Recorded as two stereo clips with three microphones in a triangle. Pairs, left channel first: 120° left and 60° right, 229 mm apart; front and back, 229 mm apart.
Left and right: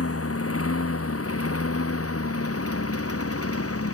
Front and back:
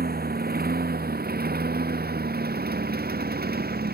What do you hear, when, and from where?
0.0 s a lawn mower: 130° left